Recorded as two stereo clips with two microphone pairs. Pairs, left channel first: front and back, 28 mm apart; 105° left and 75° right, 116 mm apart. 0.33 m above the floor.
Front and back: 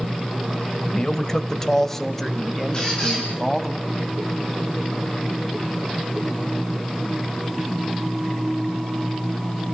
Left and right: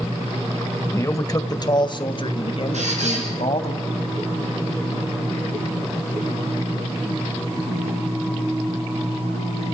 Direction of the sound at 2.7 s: 60° right.